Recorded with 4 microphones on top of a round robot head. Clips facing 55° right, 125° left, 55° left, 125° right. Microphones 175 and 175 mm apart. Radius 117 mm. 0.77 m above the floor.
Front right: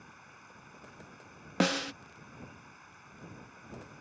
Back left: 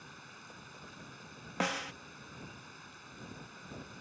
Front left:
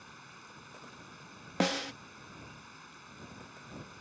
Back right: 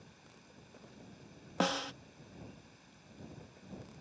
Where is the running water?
75° left.